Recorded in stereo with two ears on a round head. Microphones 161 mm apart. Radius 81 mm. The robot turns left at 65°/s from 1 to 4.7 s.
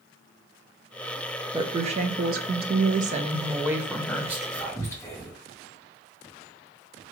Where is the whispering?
15° right (ahead or behind), 1.5 m; by 5.4 s 15° left (ahead or behind), 1.5 m.